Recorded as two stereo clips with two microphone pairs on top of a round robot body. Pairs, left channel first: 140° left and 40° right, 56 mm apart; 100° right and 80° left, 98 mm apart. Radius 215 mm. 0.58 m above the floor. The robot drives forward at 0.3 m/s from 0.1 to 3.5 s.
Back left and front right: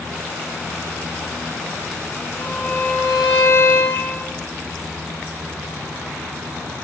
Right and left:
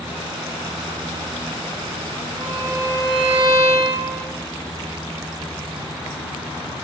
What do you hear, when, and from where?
2.4 s a violin: 140° left, 7 m